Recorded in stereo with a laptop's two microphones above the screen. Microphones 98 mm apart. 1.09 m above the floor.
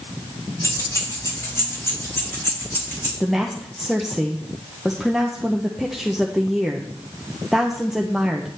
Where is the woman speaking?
Centre (ahead or behind), 0.6 m.